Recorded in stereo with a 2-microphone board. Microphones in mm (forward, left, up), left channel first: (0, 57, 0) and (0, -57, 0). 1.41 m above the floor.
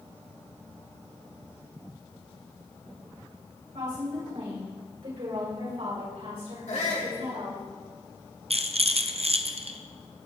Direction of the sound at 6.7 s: 80° left.